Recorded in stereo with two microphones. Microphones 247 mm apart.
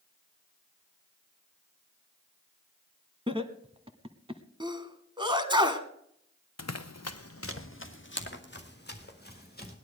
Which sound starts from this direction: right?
Laughter, at 3.3 s.